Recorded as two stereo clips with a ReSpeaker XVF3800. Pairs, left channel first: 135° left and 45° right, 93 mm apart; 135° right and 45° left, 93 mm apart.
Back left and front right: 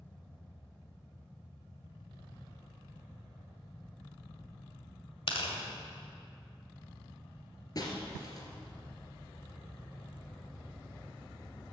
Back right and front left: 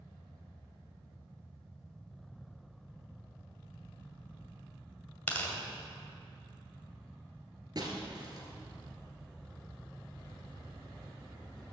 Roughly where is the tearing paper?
Behind left.